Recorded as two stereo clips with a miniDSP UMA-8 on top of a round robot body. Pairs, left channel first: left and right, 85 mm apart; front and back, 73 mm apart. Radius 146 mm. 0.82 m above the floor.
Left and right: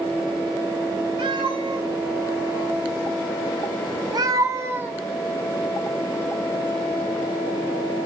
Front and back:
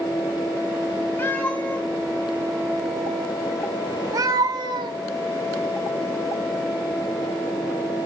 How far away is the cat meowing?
About 2 m.